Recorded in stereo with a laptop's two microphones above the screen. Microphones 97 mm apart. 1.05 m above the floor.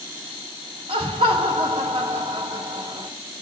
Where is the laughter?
85° right, 2 m.